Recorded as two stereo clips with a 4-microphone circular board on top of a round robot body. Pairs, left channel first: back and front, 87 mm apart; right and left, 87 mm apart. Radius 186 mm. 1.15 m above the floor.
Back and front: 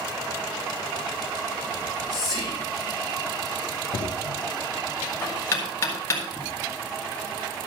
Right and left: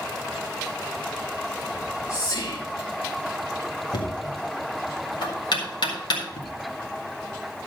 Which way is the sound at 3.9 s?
120° right.